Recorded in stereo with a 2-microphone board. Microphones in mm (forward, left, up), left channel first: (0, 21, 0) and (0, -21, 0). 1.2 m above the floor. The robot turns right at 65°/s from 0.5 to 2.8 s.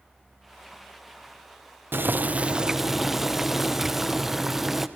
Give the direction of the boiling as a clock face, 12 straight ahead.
2 o'clock.